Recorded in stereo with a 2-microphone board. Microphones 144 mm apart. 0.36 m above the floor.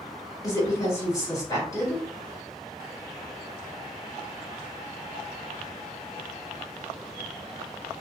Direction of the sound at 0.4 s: 20° left (ahead or behind).